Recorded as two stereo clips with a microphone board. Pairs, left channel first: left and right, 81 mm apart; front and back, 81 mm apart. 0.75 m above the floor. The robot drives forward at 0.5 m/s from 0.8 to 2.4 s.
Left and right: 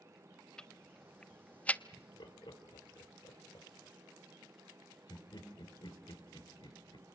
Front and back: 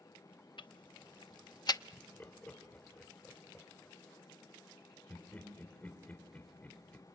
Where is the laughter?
65° left, 2.5 m; by 7.1 s 70° left, 2.5 m.